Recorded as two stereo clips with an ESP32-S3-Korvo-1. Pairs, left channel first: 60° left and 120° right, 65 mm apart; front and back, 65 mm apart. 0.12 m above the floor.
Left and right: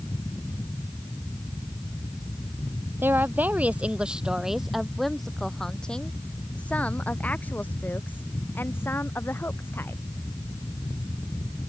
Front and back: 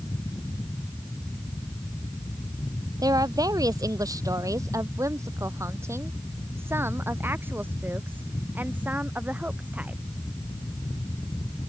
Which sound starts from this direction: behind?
A woman speaking, at 3.0 s.